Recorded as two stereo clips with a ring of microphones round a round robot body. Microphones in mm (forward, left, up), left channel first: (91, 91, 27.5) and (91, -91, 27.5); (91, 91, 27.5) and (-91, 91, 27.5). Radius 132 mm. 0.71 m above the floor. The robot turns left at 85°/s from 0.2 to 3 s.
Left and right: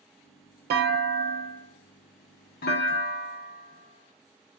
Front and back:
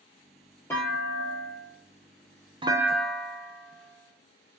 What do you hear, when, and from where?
0.7 s a clunk: 80° right, 0.7 m; by 4.6 s 85° left, 0.7 m